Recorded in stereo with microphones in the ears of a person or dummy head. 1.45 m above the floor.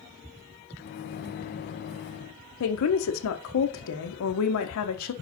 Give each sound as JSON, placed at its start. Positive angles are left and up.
{"t": 0.8, "sound": "a microwave", "side_deg": 50, "distance_m": 0.7}
{"t": 2.6, "sound": "a woman speaking", "side_deg": 80, "distance_m": 1.1}